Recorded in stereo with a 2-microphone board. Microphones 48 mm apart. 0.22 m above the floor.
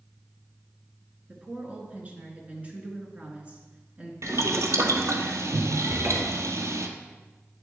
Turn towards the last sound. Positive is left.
turn(degrees=-65)  # may be behind; listen again after turning